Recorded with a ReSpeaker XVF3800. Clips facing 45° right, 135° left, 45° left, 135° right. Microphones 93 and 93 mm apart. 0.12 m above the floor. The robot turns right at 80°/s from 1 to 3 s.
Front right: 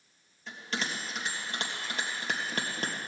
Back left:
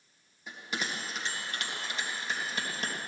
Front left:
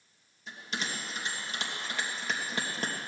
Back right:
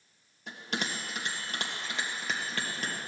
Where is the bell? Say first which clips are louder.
Front right 1 dB, back right 2 dB; 150° right, 3 m; by 3.0 s 5° left, 3 m.